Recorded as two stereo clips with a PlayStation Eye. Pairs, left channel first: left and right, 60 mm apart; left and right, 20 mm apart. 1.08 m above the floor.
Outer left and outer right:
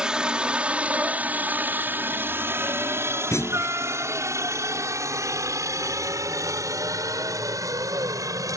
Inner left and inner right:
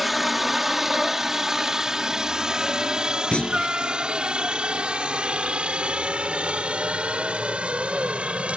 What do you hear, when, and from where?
0.0 s a helicopter: 15° right (ahead or behind); by 8.6 s 75° right (ahead or behind)
3.3 s a clunk: 55° left (ahead or behind)